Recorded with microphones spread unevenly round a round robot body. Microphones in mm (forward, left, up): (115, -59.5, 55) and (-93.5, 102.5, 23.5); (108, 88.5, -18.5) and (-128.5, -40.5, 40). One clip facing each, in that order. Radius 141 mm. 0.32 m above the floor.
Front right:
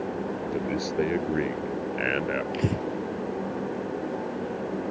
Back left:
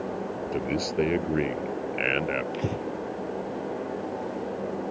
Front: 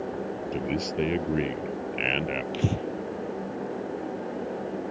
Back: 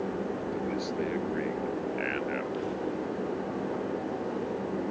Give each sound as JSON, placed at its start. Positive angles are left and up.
{"t": 0.5, "sound": "a man speaking", "azimuth_deg": 65}
{"t": 2.5, "sound": "breathing", "azimuth_deg": 30}